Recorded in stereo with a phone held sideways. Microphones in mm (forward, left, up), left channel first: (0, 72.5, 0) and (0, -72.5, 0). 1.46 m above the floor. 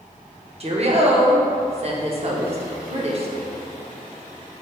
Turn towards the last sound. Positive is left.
turn(degrees=-45)  # may be behind; listen again after turning